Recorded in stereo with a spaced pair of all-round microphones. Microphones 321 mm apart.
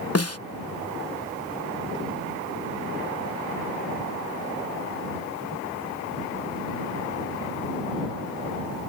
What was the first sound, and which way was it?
A snare drum, 50° left (ahead or behind).